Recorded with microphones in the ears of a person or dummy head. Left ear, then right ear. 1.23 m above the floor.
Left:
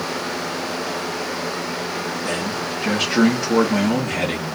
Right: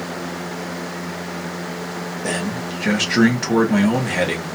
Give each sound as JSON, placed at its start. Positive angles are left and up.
{"t": 2.2, "sound": "a man speaking", "side_deg": -25, "distance_m": 0.6}